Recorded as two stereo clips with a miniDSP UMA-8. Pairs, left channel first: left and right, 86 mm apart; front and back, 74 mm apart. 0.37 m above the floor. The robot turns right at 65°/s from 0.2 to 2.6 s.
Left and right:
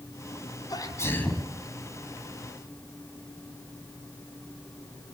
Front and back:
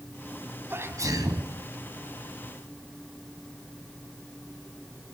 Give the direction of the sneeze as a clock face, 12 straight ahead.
8 o'clock.